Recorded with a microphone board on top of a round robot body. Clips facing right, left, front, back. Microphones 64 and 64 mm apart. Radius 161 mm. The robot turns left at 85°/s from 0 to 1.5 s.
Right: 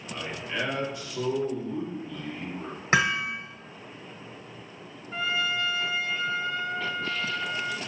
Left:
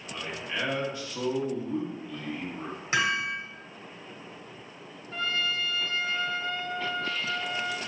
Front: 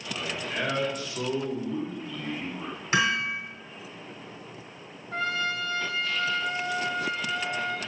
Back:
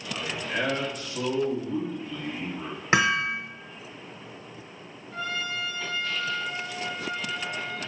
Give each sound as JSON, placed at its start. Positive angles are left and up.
{"t": 0.1, "sound": "a man speaking", "azimuth_deg": -145, "distance_m": 2.5}
{"t": 2.9, "sound": "hammering", "azimuth_deg": -145, "distance_m": 0.6}
{"t": 5.1, "sound": "a trumpet", "azimuth_deg": -15, "distance_m": 0.8}